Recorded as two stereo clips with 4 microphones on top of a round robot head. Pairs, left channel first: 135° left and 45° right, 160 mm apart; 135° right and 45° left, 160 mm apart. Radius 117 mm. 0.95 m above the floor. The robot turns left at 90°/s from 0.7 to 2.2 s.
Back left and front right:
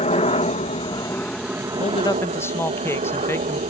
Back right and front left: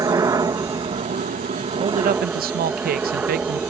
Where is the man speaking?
95° left; by 3.6 s 60° left.